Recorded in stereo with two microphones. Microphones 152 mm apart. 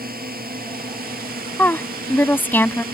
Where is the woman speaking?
15° left (ahead or behind).